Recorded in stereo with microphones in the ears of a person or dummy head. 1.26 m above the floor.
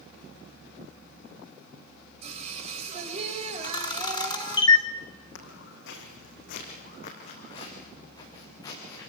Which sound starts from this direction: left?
Footsteps, at 5.3 s.